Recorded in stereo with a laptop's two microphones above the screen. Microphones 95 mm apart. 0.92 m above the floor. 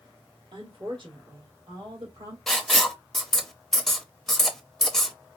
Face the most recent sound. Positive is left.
turn(degrees=5)  # may be behind; listen again after turning